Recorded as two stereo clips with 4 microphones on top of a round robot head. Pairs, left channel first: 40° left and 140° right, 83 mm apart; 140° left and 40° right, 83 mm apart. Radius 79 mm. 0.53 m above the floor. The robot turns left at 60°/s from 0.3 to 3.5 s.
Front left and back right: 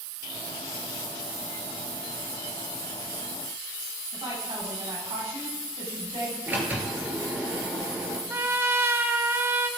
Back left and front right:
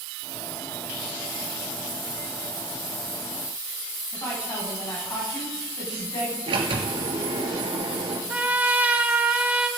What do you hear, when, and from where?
4.1 s a woman speaking: 165° right, 5 m
6.5 s a sliding door: 70° right, 1.8 m
8.3 s a trumpet: 100° right, 1.2 m